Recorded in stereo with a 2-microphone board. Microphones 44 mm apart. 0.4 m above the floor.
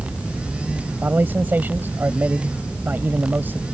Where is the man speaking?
55° right (ahead or behind).